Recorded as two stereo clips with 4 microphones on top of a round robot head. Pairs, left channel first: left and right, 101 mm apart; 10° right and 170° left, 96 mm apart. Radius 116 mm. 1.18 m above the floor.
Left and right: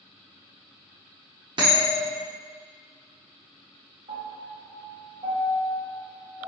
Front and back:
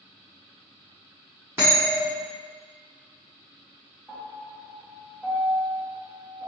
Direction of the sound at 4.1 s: 110° right.